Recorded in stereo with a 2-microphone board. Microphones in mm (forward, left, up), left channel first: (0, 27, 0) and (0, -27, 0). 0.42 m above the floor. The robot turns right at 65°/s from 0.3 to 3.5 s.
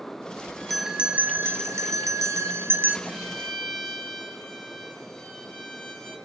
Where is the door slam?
I don't hear a door slam.